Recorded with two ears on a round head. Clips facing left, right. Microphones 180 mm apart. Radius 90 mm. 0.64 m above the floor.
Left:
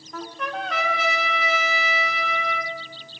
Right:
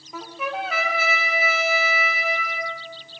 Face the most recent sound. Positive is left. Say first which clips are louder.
# right 1 dB
turn(degrees=-5)  # may be behind; listen again after turning